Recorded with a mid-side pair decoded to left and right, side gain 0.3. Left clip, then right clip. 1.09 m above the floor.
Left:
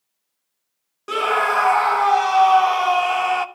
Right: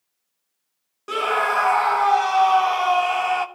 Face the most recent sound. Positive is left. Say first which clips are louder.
# left 2 dB
turn(degrees=25)